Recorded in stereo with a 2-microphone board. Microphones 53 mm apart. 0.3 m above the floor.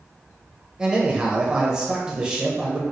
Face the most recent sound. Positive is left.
turn(degrees=-15)  # may be behind; listen again after turning